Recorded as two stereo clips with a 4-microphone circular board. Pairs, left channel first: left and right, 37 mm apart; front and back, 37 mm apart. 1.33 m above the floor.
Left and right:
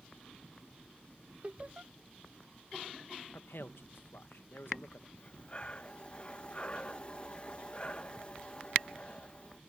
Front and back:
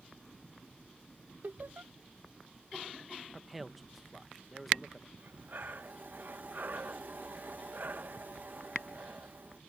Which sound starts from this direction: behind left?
Breathing, at 5.2 s.